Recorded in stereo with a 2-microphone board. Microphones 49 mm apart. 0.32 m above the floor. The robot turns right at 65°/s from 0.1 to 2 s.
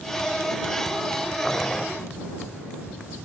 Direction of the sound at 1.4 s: 10° left (ahead or behind).